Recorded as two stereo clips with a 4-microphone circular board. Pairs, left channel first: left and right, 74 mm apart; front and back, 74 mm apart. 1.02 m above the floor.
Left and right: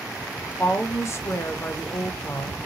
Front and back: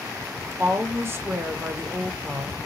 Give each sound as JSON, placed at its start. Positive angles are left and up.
{"t": 0.6, "sound": "a woman speaking", "azimuth_deg": 135, "distance_m": 0.7}